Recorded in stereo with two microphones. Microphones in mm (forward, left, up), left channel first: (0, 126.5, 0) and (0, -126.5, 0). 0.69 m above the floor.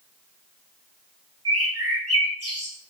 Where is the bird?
70° right (ahead or behind), 2 m.